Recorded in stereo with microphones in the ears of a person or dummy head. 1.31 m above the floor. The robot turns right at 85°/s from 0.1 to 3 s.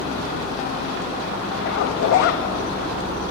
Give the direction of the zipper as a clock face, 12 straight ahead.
10 o'clock.